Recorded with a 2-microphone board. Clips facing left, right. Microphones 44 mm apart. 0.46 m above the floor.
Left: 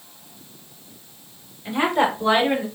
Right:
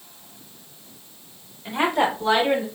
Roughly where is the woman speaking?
Centre.